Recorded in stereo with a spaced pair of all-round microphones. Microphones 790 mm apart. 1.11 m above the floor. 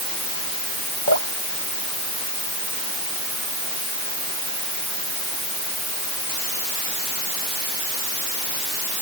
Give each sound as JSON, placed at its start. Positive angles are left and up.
{"t": 1.1, "sound": "dripping", "side_deg": 80}